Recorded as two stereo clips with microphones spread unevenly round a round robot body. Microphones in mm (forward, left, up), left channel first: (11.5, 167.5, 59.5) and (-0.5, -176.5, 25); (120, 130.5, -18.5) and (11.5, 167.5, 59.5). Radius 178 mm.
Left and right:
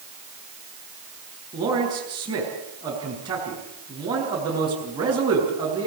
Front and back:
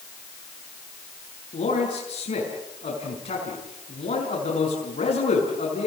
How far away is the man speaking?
About 5.5 m.